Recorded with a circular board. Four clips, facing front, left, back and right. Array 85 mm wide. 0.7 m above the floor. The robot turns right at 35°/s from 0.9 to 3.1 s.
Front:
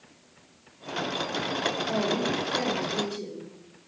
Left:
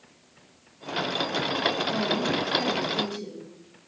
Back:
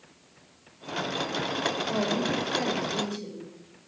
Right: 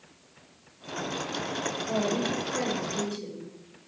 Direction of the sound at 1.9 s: 35° right.